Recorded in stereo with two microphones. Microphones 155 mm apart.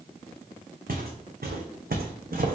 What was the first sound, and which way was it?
Footsteps, 70° right (ahead or behind).